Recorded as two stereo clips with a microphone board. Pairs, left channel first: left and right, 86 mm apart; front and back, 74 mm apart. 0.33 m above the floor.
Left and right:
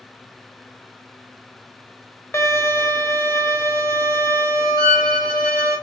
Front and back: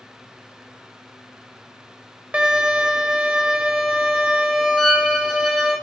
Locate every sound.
2.3 s a violin: 120° left, 0.7 m
4.8 s a violin: 85° right, 1.4 m